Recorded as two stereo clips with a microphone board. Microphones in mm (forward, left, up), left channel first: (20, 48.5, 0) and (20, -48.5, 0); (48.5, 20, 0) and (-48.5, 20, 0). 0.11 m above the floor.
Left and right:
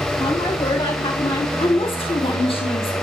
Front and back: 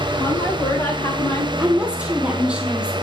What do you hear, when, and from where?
0.2 s a woman speaking: 65° left, 9 m
1.6 s a woman speaking: 100° left, 3 m